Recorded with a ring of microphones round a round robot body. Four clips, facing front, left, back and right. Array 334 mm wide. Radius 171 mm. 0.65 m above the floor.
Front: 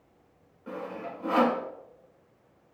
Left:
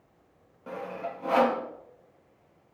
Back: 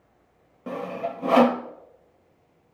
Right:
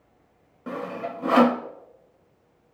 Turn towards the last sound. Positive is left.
turn(degrees=-155)